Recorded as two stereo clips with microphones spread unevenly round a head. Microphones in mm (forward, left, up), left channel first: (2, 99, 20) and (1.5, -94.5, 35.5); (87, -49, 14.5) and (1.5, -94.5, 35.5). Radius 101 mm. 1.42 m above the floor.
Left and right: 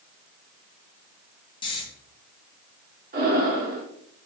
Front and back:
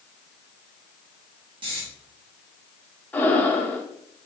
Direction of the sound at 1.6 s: 160° left.